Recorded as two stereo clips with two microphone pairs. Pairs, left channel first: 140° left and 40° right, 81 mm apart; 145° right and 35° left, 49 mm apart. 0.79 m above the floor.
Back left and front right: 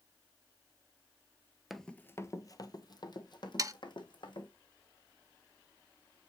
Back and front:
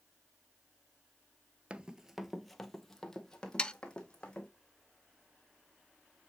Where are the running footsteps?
45° left, 0.8 m; by 4.5 s 140° left, 3 m.